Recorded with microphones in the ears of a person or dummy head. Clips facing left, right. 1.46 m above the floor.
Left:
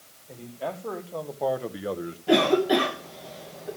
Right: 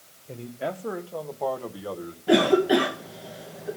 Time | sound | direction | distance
0.3 | a man speaking | 35° right (ahead or behind) | 1.3 m
2.3 | a cough | 10° right (ahead or behind) | 1.0 m